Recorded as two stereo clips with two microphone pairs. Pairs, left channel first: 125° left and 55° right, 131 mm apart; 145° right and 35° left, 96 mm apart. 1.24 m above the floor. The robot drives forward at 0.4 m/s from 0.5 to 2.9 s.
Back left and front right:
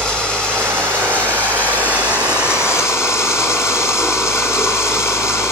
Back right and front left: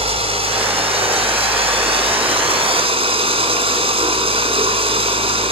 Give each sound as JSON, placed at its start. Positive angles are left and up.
{"t": 0.0, "sound": "running water", "azimuth_deg": 40, "distance_m": 3.5}